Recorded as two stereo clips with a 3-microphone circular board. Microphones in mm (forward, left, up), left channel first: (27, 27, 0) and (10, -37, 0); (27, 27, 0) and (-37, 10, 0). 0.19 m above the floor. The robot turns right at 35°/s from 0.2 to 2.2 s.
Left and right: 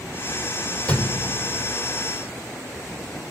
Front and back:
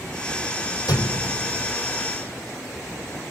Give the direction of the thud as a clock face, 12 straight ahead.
12 o'clock.